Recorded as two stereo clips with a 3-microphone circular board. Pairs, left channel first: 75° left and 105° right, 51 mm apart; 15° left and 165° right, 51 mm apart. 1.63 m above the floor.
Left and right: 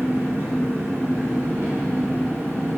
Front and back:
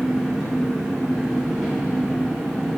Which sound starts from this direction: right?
An engine running, at 0.0 s.